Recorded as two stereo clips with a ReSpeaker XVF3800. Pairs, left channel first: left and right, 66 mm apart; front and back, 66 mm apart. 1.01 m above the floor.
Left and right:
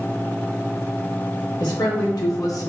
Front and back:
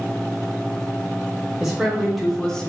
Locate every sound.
1.6 s a man speaking: 95° left, 1.7 m; by 2.7 s 70° left, 0.9 m